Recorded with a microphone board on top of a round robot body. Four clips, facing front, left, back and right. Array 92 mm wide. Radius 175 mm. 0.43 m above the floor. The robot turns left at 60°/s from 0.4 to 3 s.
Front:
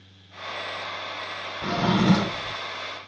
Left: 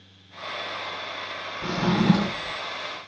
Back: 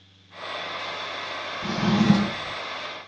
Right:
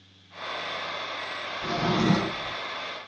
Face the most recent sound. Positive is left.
turn(degrees=-65)